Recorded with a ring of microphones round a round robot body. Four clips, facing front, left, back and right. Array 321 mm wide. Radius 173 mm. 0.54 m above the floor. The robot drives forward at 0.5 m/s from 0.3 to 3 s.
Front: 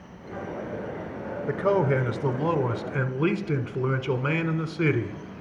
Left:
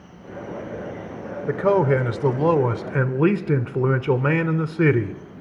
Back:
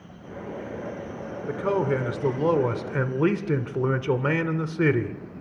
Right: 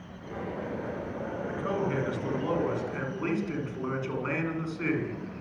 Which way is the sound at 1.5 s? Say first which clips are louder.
Left 14 dB, front 1 dB; 80° left.